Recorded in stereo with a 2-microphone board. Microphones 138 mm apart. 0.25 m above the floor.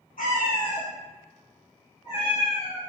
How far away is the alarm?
I don't hear an alarm.